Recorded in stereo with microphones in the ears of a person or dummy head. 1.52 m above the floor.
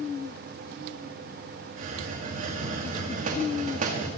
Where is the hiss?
50° right (ahead or behind), 2.5 m.